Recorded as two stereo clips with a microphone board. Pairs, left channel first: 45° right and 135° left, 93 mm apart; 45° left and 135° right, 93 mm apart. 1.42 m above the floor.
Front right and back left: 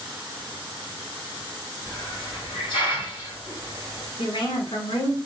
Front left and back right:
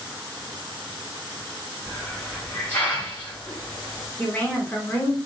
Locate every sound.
1.9 s a hiss: 25° right, 2 m
4.2 s a woman speaking: 25° right, 0.8 m